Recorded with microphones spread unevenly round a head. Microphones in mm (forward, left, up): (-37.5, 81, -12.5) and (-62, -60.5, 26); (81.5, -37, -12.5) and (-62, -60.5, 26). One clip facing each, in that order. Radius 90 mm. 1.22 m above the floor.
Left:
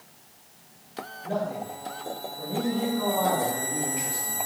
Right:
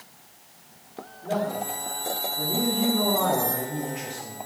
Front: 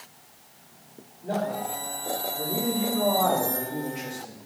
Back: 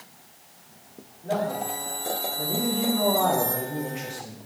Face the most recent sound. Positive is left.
turn(degrees=-80)